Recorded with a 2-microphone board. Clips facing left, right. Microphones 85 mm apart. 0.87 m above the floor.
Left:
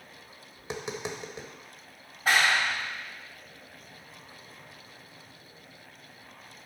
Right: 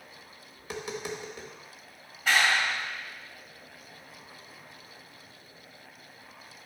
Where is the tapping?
25° left (ahead or behind), 1.0 m.